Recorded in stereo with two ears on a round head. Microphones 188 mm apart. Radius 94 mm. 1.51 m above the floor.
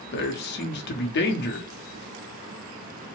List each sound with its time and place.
0.1 s a man speaking: 55° left (ahead or behind), 0.7 m